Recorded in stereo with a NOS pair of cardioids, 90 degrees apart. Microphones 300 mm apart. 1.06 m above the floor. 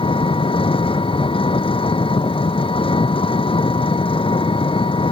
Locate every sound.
0.0 s an engine running: 20° left